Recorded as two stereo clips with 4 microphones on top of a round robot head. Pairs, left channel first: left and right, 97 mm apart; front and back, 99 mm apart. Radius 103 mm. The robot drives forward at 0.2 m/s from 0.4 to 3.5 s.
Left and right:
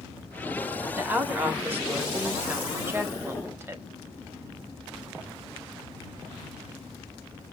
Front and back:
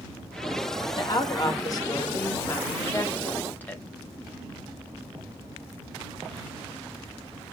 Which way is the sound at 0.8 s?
25° right.